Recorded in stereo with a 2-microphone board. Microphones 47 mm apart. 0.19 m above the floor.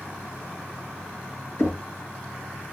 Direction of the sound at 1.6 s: 60° left (ahead or behind).